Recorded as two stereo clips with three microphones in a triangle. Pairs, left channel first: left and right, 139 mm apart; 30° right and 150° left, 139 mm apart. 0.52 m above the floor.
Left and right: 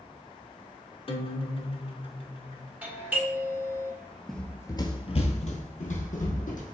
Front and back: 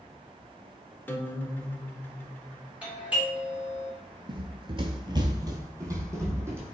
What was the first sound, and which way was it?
A guitar, 45° left.